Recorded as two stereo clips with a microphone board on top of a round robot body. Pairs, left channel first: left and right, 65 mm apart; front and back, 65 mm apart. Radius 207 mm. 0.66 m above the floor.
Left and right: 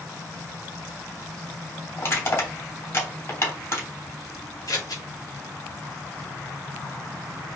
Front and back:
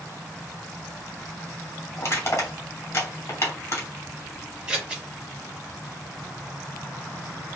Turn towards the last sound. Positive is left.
turn(degrees=105)